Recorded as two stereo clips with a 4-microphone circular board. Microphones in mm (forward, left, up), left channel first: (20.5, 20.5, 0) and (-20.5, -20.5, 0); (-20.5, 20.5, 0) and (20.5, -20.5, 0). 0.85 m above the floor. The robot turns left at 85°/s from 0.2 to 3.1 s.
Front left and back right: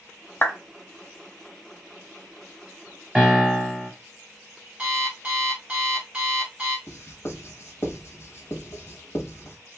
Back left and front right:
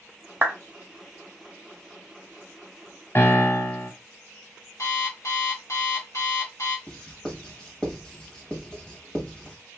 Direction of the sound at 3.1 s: 145° left.